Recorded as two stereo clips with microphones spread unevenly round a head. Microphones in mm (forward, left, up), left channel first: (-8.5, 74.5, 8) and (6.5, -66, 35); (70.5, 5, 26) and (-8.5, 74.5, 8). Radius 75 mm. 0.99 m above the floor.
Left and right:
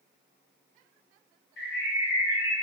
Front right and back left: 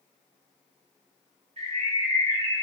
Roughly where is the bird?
Behind left.